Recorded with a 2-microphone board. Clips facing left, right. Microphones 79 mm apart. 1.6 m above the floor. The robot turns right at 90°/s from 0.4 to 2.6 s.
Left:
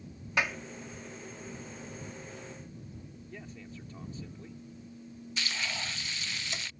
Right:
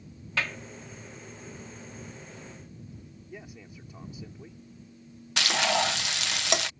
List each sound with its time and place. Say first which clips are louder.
0.4 s a clap: left 1 dB; 20° left (ahead or behind); by 0.6 s 5° left (ahead or behind)
3.3 s a man speaking: right 1 dB; 10° right (ahead or behind)
5.4 s frying: right 11 dB; 80° right